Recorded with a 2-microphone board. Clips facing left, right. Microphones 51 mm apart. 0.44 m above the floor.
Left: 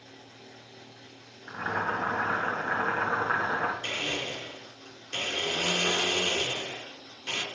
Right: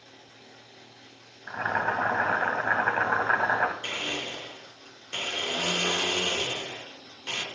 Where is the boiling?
70° right (ahead or behind), 2.5 m.